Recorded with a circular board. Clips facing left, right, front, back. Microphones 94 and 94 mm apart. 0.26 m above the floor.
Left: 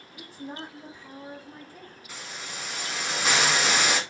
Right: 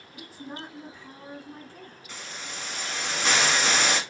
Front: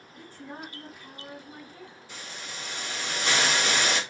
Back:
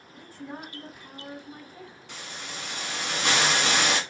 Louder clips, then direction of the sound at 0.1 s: Left 1 dB, back 2 dB; 115° left.